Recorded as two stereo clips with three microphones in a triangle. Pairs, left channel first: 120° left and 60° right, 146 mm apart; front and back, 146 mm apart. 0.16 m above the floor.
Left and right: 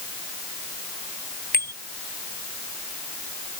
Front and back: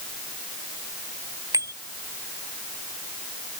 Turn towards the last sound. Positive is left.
turn(degrees=110)